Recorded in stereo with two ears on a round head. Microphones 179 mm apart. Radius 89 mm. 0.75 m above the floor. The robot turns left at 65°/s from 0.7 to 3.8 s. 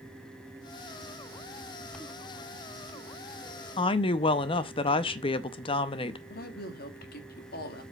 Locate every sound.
3.8 s a woman speaking: 25° left (ahead or behind), 0.6 m
6.3 s a woman speaking: 50° left (ahead or behind), 1.7 m